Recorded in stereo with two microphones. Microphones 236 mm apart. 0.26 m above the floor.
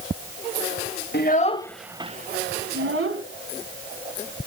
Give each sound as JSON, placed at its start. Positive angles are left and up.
{"t": 1.1, "sound": "a child speaking", "side_deg": 45, "distance_m": 0.9}